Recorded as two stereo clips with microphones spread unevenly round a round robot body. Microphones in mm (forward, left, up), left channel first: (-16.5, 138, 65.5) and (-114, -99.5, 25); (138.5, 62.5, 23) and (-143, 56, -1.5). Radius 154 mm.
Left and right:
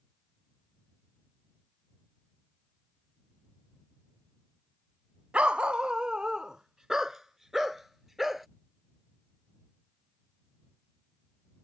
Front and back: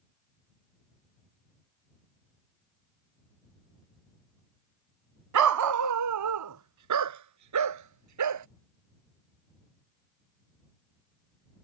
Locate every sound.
5.3 s a dog barking: 160° left; by 8.5 s 155° left